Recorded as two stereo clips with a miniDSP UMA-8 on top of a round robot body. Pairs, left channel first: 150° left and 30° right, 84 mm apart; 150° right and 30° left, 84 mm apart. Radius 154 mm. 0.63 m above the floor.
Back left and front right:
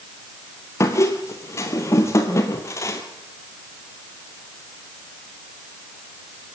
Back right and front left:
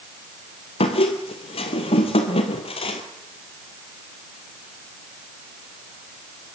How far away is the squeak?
About 1.5 m.